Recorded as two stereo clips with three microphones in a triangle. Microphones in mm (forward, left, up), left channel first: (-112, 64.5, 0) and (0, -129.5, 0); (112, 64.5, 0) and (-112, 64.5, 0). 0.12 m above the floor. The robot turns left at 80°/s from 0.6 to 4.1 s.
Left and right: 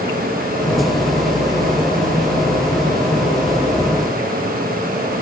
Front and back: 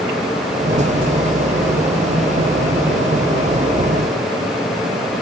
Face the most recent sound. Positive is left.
No sound to turn to.